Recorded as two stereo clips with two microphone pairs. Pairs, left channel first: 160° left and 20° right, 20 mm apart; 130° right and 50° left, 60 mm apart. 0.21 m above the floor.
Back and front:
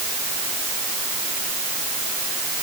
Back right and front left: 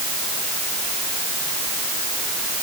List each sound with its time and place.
Only background noise.